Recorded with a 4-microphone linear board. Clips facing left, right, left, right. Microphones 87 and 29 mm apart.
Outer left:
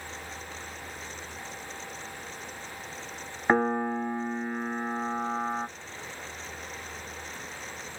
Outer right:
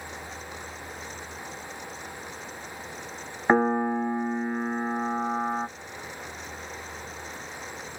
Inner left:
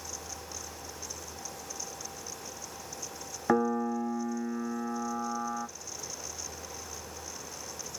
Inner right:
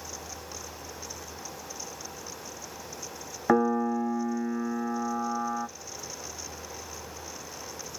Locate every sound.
3.5 s a piano: 10° right (ahead or behind), 0.6 m